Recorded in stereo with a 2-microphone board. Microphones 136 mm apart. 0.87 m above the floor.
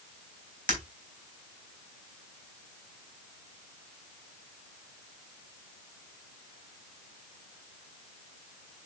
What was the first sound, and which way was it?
Breaking glass, 80° right.